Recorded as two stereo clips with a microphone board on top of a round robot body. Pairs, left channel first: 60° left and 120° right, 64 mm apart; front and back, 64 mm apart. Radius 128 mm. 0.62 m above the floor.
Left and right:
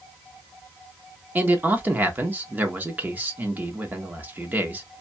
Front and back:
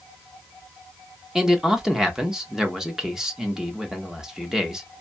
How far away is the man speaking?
About 1.0 m.